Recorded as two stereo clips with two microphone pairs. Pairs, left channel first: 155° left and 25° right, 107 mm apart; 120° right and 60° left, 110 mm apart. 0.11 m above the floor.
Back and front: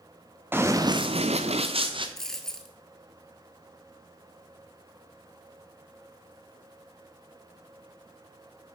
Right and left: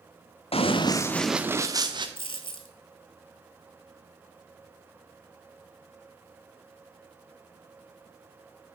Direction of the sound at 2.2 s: 120° right.